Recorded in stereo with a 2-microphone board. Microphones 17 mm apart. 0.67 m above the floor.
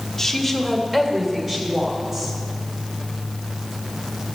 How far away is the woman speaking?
About 1.5 m.